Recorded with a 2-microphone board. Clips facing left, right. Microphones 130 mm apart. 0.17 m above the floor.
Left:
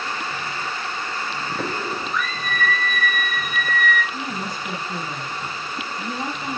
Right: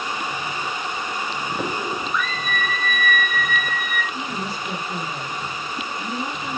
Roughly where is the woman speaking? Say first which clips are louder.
Right 1 dB; left.